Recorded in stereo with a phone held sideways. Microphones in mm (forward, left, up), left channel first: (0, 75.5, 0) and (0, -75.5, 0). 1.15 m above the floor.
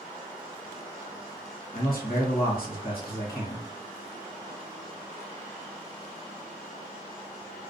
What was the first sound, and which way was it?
A man speaking, 80° left.